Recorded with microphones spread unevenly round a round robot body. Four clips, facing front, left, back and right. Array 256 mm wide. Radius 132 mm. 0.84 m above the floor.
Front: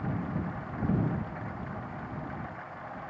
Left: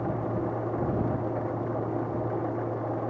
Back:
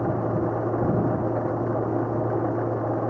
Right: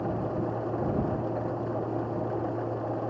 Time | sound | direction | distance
0.0 | an engine running | 170° left | ?